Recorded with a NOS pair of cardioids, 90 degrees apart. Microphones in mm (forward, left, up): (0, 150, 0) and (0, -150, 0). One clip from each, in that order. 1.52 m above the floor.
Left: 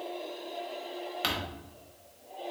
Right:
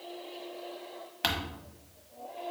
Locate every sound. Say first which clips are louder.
1.2 s crumpling: right 1 dB; 5° right, 1.1 m